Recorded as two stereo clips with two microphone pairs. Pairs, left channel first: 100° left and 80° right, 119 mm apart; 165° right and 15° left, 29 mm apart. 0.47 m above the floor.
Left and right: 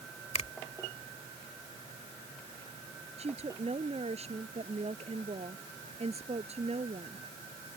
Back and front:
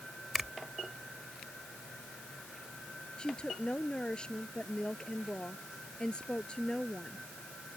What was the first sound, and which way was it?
A finger snap, 95° left.